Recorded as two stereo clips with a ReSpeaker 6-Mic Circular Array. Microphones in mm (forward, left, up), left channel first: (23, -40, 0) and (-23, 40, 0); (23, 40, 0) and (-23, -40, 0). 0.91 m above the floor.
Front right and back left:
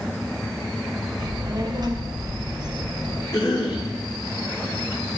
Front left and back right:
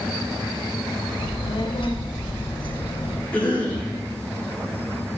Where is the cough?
15° right, 9 m.